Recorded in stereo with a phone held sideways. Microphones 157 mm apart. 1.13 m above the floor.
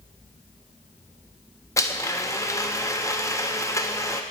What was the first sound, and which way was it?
A blender, 20° left (ahead or behind).